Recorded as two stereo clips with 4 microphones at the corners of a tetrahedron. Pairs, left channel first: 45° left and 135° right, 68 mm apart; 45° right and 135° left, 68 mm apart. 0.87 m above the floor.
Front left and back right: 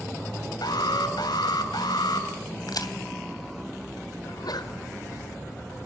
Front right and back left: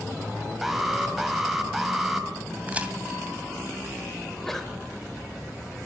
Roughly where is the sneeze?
Ahead left.